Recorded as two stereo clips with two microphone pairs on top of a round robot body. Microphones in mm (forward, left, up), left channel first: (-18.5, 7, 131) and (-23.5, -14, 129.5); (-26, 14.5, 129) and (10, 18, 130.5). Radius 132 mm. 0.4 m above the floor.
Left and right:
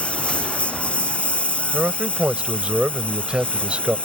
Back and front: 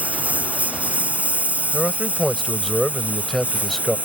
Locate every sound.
0.0 s a lawn mower: 50° left
1.7 s a man speaking: 90° right